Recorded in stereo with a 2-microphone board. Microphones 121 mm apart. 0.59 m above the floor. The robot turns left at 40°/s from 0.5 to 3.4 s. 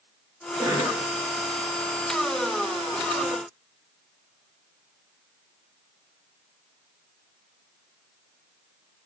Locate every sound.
0.6 s a cough: 30° right (ahead or behind), 0.8 m; by 1.0 s 35° right (ahead or behind), 0.8 m